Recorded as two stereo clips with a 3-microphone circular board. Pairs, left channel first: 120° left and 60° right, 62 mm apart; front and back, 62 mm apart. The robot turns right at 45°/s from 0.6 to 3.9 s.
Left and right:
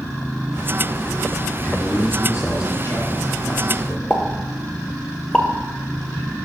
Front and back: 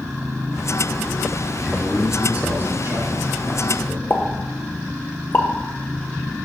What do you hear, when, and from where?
1.6 s a man speaking: 80° left, 2.5 m; by 4.0 s straight behind, 2.5 m
4.1 s a pop: 45° left, 0.8 m